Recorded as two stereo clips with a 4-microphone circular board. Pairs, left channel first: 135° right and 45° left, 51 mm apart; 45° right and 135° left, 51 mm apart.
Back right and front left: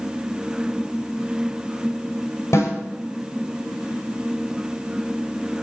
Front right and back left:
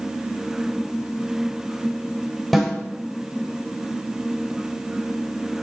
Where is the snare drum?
130° right, 6 m.